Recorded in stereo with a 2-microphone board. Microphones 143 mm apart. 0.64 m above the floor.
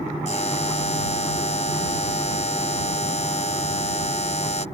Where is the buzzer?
50° left (ahead or behind).